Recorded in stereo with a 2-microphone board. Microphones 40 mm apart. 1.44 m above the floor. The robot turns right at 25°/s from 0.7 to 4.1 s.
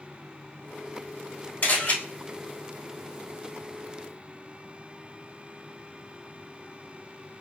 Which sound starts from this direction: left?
A camera shutter, at 1.6 s.